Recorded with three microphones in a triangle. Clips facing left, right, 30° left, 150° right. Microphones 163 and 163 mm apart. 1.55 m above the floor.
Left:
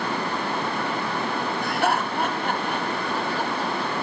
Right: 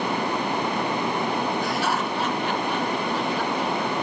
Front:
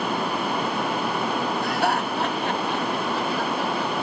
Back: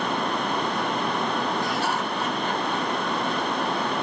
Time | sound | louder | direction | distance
1.6 | laughter | left 1 dB, front 3 dB | 55° left | 3 m